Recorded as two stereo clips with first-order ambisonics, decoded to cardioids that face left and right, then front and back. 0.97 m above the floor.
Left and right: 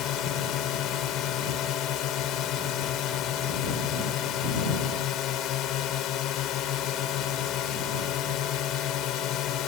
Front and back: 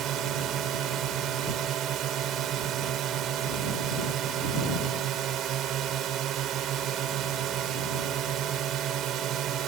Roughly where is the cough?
I don't hear a cough.